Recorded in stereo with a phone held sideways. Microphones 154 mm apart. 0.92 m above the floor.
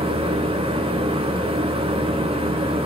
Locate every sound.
0.0 s a fan: 35° right (ahead or behind), 3 m